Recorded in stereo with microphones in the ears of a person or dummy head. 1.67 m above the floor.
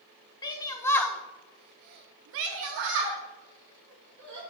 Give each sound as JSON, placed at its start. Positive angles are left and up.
{"t": 0.4, "sound": "a shout", "side_deg": 20, "distance_m": 1.2}